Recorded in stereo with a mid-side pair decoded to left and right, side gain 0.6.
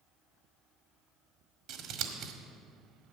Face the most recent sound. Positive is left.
turn(degrees=-70)